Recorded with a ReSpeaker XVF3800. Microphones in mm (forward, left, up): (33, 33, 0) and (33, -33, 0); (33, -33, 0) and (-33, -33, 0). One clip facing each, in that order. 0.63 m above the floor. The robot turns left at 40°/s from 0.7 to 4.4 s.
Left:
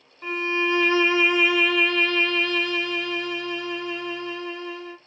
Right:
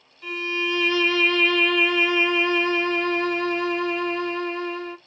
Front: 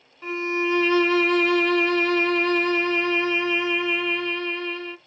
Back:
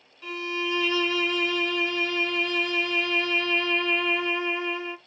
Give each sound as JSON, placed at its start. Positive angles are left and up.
{"t": 0.2, "sound": "a violin", "azimuth_deg": 45, "distance_m": 0.5}